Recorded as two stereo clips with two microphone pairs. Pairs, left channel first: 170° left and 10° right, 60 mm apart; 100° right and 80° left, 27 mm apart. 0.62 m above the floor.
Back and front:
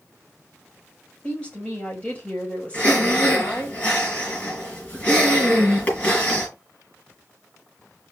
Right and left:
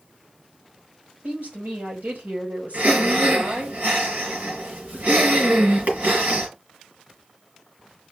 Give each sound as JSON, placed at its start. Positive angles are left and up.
{"t": 1.2, "sound": "a woman speaking", "azimuth_deg": 100, "distance_m": 4.0}
{"t": 2.7, "sound": "breathing", "azimuth_deg": 105, "distance_m": 3.5}